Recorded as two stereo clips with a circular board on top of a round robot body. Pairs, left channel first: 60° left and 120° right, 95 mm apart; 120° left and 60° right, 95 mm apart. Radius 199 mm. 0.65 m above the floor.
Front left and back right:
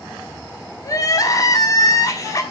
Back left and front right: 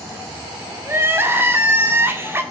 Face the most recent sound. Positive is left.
turn(degrees=5)